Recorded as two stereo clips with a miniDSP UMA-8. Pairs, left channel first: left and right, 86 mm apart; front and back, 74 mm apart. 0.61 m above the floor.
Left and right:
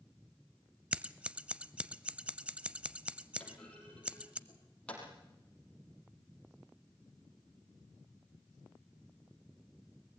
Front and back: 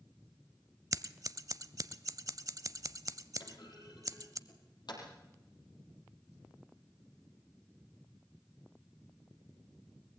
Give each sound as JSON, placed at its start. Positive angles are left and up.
{"t": 0.9, "sound": "scissors", "azimuth_deg": -160, "distance_m": 0.5}
{"t": 3.4, "sound": "a clunk", "azimuth_deg": 10, "distance_m": 4.5}